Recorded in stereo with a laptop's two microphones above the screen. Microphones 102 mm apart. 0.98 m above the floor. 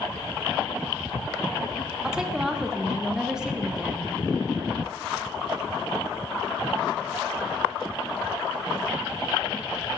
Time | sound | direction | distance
2.0 | a woman speaking | 5° right (ahead or behind) | 0.6 m